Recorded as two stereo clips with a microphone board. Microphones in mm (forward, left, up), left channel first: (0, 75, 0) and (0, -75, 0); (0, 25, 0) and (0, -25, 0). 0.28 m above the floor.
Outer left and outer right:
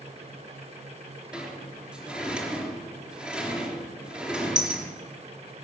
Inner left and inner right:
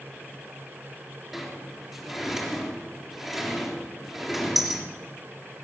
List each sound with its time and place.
1.3 s a sliding door: 5° right (ahead or behind), 3.5 m